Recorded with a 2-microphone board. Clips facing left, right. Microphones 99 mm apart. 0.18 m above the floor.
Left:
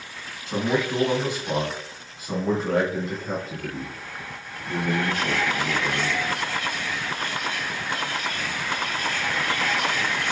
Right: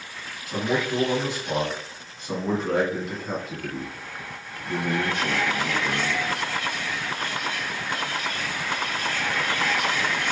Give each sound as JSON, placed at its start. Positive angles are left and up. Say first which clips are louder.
{"t": 0.5, "sound": "a man speaking", "louder": "left 1 dB", "side_deg": 30, "distance_m": 1.7}